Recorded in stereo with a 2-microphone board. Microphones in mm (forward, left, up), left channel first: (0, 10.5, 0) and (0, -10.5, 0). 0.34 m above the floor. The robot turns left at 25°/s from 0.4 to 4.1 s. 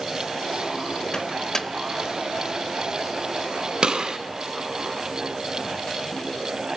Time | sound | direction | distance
1.1 | a microwave | 35° left (ahead or behind) | 1.0 m
3.8 | a gunshot | 40° right (ahead or behind) | 2 m